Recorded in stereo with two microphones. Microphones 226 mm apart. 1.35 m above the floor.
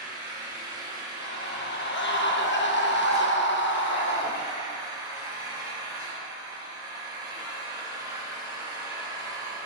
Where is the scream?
55° left (ahead or behind), 0.6 m.